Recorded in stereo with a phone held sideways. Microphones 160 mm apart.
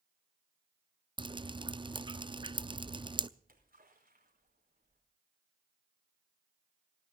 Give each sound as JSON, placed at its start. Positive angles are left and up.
{"t": 1.2, "sound": "dripping", "side_deg": -30, "distance_m": 0.6}
{"t": 3.4, "sound": "a splash", "side_deg": -65, "distance_m": 4.5}